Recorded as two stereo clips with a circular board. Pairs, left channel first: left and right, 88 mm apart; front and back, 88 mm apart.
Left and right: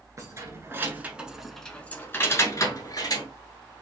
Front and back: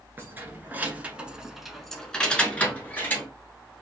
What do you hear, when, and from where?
0.2 s keys jangling: 125° right, 1.1 m; by 3.3 s 65° left, 1.3 m